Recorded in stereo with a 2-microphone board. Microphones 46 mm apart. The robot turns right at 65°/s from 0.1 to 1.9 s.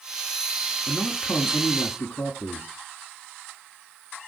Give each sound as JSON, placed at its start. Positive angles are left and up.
{"t": 0.9, "sound": "a man speaking", "azimuth_deg": 35, "distance_m": 1.6}